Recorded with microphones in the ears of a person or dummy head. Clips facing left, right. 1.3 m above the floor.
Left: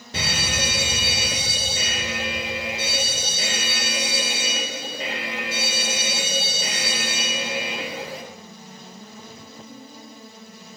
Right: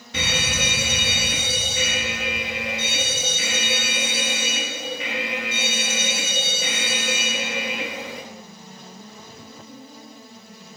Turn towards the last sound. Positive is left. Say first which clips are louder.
# right 1 dB
turn(degrees=40)  # may be behind; listen again after turning